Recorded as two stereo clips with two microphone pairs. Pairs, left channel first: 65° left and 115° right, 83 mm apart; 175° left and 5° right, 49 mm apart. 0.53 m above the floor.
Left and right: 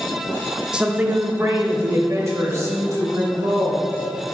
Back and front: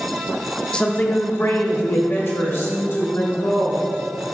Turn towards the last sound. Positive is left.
turn(degrees=-165)